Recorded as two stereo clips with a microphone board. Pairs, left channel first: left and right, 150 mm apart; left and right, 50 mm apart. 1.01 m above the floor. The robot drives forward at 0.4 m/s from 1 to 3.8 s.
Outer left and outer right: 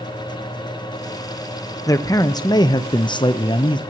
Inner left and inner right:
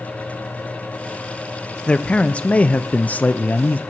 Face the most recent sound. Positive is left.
turn(degrees=30)  # may be behind; listen again after turning